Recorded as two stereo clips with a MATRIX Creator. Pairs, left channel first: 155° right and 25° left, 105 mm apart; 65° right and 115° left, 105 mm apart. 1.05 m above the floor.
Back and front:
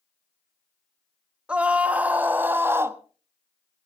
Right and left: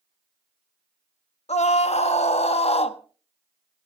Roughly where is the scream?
Ahead right.